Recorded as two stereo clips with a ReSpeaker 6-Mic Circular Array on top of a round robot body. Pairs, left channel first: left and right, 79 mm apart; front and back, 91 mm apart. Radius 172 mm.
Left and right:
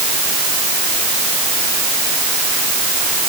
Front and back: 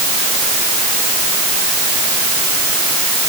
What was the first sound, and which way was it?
Only background noise.